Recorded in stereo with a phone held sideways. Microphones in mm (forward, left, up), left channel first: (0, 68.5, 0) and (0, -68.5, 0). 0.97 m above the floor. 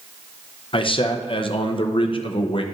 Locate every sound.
0.7 s a man speaking: 45° left (ahead or behind), 0.6 m